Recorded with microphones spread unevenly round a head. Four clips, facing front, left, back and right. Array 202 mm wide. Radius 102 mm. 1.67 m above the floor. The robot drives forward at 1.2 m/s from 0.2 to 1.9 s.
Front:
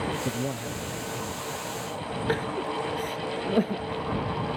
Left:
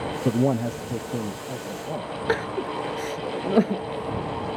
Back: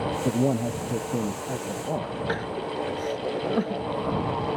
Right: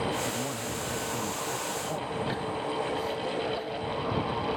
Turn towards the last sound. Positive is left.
turn(degrees=85)